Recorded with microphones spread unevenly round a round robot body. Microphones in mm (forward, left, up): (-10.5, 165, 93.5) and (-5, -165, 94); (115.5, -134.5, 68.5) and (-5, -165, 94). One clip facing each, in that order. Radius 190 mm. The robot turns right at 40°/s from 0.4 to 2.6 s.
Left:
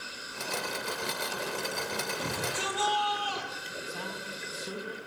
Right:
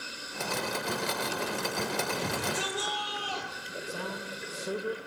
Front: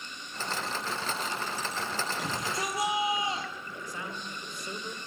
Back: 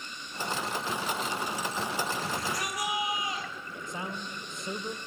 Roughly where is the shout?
Ahead right.